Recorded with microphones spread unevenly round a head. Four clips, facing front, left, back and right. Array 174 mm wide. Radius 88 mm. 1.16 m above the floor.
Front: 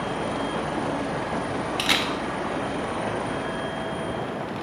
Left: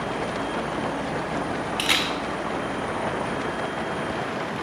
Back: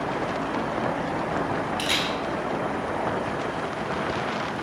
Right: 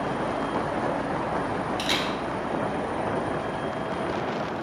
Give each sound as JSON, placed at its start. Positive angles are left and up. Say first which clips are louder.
{"t": 1.8, "sound": "a camera shutter", "louder": "left 1 dB, front 1 dB", "azimuth_deg": 50, "distance_m": 1.2}